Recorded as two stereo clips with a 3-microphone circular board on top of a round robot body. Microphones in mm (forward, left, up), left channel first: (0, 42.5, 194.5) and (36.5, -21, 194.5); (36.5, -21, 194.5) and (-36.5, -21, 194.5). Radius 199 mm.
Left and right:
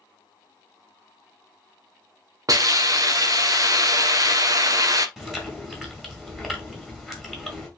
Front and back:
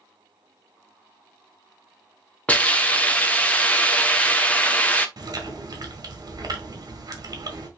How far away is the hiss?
About 1.6 m.